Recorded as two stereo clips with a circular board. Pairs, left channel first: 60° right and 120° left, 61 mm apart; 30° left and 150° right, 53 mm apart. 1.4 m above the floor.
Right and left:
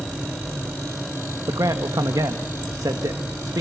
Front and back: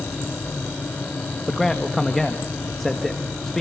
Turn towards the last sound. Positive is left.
turn(degrees=115)